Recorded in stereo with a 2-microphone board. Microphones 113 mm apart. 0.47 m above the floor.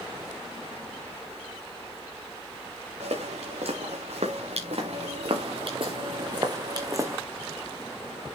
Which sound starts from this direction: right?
Footsteps, at 3.0 s.